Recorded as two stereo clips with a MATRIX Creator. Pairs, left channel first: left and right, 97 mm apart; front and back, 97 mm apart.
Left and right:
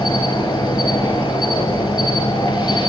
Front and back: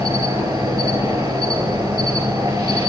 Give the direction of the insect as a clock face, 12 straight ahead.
8 o'clock.